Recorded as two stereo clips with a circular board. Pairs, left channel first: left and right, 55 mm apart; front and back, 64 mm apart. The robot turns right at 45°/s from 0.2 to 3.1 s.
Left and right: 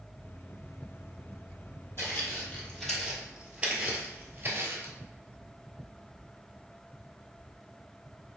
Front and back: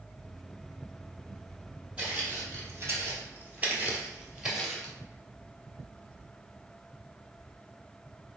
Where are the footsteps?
115° left, 1.7 m; by 4.9 s 85° right, 1.4 m.